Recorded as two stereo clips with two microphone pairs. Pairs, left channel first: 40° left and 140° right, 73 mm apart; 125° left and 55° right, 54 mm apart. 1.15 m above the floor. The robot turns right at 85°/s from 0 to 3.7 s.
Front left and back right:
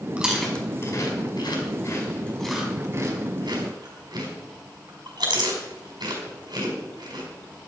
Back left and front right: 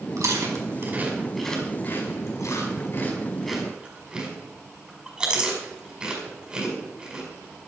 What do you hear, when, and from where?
0.2 s chewing: 65° right, 5 m; by 7.3 s 125° right, 5 m